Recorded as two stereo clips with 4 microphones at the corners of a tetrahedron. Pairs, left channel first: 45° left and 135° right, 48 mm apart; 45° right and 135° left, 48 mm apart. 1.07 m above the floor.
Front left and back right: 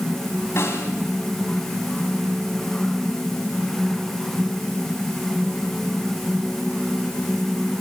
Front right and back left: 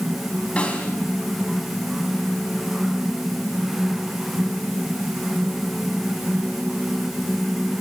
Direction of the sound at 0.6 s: 25° left.